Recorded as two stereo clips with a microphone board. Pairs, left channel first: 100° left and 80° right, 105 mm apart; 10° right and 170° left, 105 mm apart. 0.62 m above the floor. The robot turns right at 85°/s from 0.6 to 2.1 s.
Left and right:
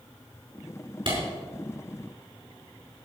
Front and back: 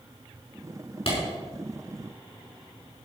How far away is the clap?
About 5.5 m.